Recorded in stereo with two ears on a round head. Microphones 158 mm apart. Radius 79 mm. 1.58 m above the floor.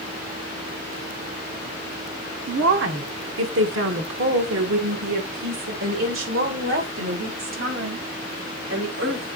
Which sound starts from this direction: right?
A woman speaking, at 2.5 s.